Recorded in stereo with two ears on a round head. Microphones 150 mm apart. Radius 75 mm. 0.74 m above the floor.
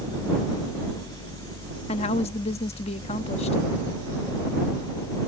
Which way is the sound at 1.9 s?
40° left (ahead or behind).